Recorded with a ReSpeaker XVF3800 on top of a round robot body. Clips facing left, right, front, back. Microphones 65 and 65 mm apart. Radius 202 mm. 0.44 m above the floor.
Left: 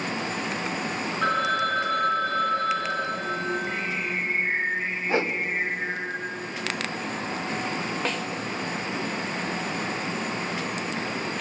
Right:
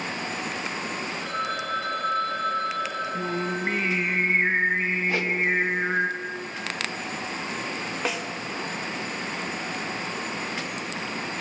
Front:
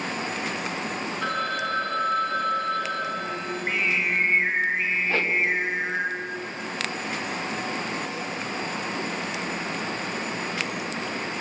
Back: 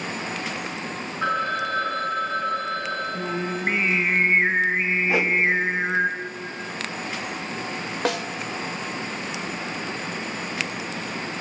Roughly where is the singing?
Behind right.